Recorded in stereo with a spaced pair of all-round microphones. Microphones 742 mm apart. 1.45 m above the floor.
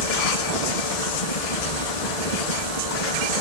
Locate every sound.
0.0 s a helicopter: 55° left (ahead or behind)